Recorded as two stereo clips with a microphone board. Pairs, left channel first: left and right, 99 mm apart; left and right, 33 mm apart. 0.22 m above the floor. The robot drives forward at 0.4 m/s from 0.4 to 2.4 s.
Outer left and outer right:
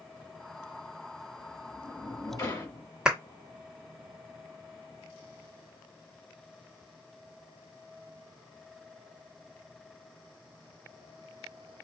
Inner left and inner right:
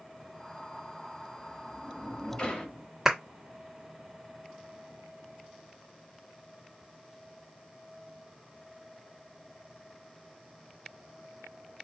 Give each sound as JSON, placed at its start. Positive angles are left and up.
{"t": 1.4, "sound": "a sliding door", "side_deg": 45, "distance_m": 1.3}
{"t": 3.0, "sound": "a clap", "side_deg": -10, "distance_m": 1.4}